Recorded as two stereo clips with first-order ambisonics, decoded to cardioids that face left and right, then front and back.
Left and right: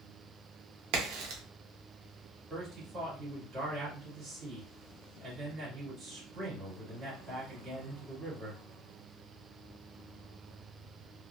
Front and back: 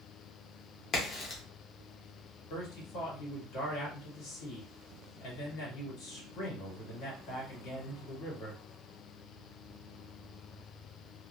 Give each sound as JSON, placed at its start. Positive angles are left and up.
{"t": 0.9, "sound": "a crack", "azimuth_deg": -65, "distance_m": 0.9}
{"t": 2.5, "sound": "a man speaking", "azimuth_deg": -15, "distance_m": 1.8}